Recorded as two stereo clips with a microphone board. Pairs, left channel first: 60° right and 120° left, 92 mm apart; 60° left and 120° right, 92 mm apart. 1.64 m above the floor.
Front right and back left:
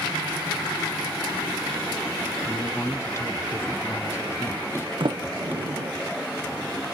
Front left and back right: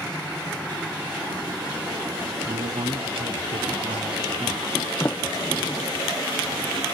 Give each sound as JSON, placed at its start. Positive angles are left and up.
{"t": 2.5, "sound": "a man speaking", "azimuth_deg": -120, "distance_m": 1.3}
{"t": 5.0, "sound": "a sliding door", "azimuth_deg": 125, "distance_m": 0.6}